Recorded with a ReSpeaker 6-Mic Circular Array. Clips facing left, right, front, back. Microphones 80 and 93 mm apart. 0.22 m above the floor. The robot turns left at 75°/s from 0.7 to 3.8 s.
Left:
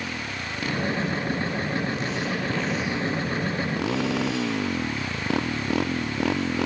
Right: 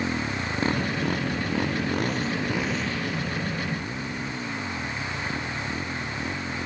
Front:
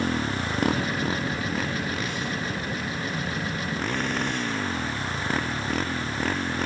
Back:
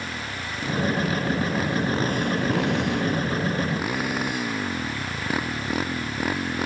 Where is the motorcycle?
30° right; by 6.7 s 100° left.